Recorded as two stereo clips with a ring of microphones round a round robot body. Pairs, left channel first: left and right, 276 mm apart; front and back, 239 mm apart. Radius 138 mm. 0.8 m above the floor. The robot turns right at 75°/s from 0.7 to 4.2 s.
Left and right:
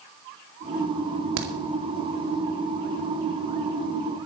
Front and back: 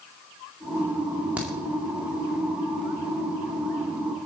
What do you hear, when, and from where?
1.4 s a crack: 95° right, 2 m; by 1.5 s 85° right, 2 m